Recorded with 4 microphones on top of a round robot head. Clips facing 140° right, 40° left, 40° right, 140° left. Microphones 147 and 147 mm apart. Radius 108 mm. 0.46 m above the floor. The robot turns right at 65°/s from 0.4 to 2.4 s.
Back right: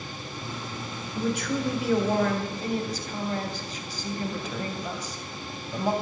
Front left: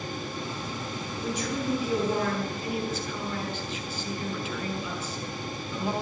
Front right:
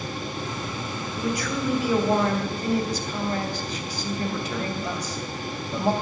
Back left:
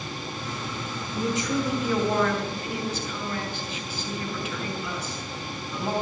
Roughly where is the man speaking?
Behind.